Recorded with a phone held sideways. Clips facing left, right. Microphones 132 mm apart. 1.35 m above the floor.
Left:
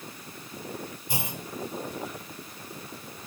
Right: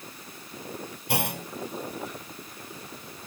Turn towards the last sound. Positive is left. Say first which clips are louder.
# right 8 dB
turn(degrees=-75)  # may be behind; listen again after turning